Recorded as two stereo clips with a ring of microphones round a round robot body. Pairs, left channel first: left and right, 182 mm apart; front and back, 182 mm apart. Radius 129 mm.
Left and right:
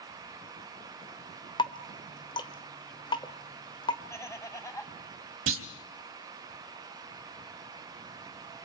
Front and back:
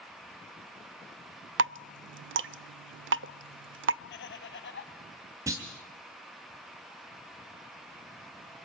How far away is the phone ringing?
I don't hear a phone ringing.